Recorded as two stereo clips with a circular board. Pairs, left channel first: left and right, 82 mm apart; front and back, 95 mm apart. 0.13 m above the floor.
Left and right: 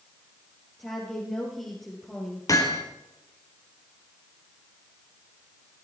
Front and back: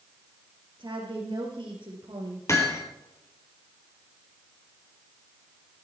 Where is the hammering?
55° left, 3 m.